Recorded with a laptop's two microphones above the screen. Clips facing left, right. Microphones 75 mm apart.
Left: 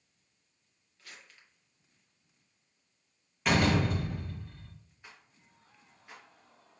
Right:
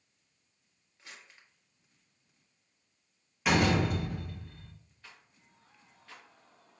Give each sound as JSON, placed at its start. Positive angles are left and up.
{"t": 1.0, "sound": "crumpling", "side_deg": -20, "distance_m": 0.7}
{"t": 3.5, "sound": "a door slam", "side_deg": -5, "distance_m": 0.9}
{"t": 5.0, "sound": "a rattle", "side_deg": 20, "distance_m": 0.8}